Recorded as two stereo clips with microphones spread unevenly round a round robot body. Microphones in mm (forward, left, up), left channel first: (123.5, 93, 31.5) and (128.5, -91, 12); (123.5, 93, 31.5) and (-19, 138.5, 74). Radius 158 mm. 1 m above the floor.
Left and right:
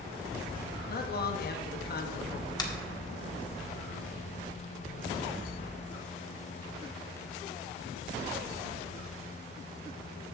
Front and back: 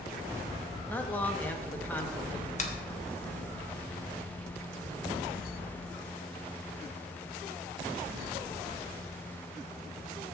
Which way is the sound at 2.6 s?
20° left.